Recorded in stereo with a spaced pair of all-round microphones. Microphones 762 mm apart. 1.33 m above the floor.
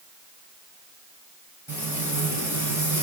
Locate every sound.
1.7 s frying: 25° right (ahead or behind), 8 m